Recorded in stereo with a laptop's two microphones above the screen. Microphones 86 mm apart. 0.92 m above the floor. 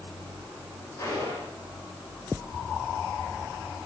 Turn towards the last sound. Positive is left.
turn(degrees=40)  # may be behind; listen again after turning